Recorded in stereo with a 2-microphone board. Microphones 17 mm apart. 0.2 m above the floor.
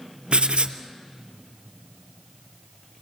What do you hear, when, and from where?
0.3 s writing: 85° right, 1.0 m